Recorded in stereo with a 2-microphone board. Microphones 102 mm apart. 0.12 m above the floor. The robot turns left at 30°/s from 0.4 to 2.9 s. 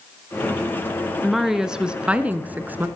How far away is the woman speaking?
About 1.4 m.